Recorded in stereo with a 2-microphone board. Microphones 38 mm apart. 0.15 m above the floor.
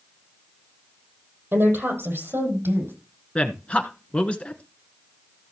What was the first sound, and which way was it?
A woman speaking, 60° right (ahead or behind).